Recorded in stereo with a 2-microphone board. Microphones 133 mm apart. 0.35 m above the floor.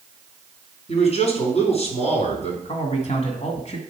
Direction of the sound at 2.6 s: 55° left (ahead or behind).